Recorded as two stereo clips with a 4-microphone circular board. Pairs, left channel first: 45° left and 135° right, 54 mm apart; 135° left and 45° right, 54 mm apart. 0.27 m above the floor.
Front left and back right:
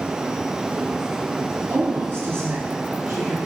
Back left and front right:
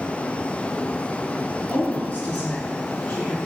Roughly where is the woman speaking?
Behind.